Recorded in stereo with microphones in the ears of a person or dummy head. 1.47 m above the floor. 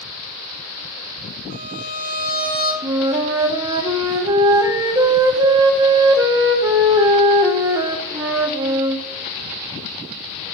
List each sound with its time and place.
1.5 s a violin: 70° left (ahead or behind), 4.5 m
2.8 s a flute: 20° right (ahead or behind), 0.6 m